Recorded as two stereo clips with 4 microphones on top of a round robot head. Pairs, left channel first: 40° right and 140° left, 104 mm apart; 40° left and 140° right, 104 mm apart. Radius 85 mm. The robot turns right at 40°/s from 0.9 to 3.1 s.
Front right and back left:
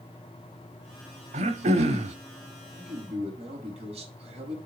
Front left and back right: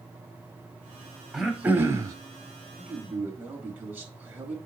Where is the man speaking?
135° left, 4.5 m; by 4.6 s 150° left, 4.5 m.